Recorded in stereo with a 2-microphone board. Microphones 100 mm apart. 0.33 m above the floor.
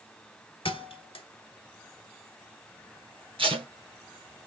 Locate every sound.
0.7 s a thud: 65° left (ahead or behind), 1.3 m
3.4 s tape being pulled: 65° right (ahead or behind), 2 m